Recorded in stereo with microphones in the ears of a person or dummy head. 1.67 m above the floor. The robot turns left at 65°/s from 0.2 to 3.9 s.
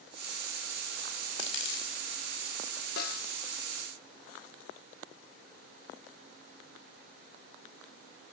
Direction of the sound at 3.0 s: 65° left (ahead or behind).